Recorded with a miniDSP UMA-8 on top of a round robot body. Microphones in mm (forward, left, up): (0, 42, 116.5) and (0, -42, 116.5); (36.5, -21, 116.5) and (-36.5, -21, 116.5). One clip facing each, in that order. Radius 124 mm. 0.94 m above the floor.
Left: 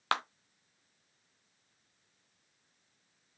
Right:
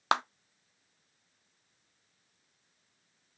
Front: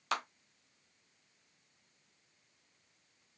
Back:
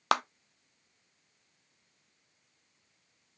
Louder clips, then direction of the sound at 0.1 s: Right 4 dB, back 9 dB; 160° right.